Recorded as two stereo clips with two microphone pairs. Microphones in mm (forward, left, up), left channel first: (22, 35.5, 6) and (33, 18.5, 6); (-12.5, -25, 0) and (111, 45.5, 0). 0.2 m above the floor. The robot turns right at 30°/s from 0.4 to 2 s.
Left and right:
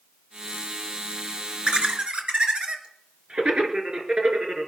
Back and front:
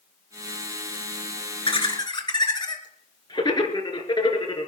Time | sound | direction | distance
1.6 | laughter | 105° right | 2.5 m